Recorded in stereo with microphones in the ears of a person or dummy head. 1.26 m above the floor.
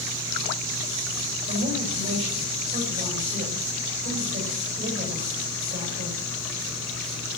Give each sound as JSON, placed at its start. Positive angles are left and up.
{"t": 1.5, "sound": "a man speaking", "side_deg": -40, "distance_m": 7.5}